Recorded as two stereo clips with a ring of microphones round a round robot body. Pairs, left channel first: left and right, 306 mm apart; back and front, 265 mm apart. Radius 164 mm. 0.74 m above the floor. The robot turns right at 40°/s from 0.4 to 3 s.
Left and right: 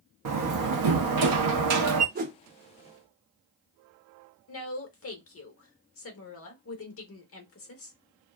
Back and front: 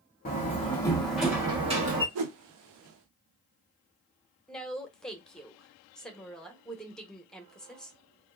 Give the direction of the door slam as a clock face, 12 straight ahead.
4 o'clock.